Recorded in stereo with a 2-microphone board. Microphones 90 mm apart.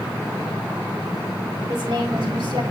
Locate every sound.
1.7 s a woman speaking: 65° right (ahead or behind), 3.5 m